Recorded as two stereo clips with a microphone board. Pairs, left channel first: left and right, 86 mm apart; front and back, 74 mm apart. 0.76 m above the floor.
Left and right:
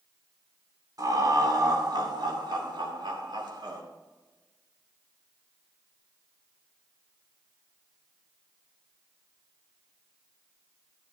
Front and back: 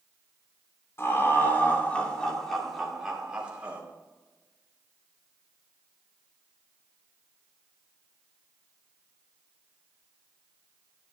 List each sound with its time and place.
1.0 s laughter: 50° right, 3 m; by 3.8 s 110° right, 3 m